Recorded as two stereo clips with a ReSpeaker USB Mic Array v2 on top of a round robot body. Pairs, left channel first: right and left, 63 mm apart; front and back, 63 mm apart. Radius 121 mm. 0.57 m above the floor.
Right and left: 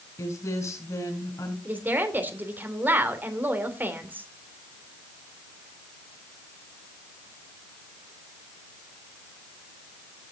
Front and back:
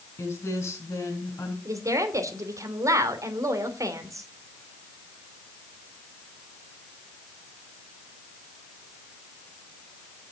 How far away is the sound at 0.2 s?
About 5.5 m.